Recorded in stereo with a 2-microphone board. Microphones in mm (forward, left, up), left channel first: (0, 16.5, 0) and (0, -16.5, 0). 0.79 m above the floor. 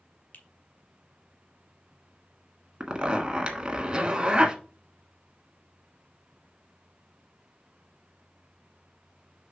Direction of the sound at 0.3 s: 60° left (ahead or behind).